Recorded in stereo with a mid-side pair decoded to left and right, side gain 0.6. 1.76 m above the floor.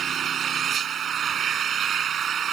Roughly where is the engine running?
Ahead right.